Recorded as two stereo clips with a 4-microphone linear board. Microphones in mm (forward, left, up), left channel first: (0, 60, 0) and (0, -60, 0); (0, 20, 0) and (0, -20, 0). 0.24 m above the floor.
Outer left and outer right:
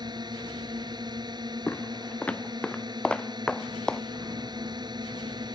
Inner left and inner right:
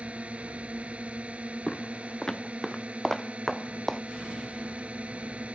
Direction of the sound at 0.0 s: 35° right (ahead or behind).